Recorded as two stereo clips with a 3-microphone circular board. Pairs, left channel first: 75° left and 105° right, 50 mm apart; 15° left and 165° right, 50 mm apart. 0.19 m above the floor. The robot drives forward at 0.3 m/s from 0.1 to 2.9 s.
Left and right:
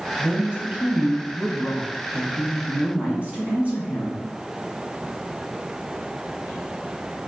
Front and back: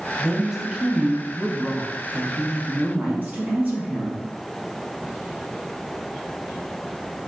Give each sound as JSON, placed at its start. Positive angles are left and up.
{"t": 0.2, "sound": "a woman speaking", "azimuth_deg": -90, "distance_m": 1.1}